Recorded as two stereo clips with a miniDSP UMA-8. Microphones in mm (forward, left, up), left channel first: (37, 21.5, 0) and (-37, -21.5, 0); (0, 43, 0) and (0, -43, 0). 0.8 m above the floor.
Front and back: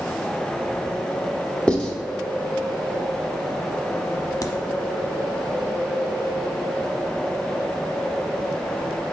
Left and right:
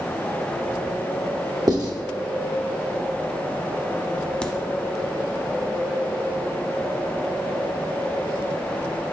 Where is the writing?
50° right, 0.9 m.